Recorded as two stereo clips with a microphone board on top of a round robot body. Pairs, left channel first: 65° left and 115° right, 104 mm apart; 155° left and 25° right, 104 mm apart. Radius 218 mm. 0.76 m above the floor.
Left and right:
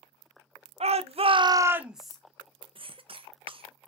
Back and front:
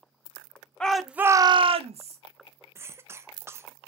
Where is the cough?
85° right, 0.7 m.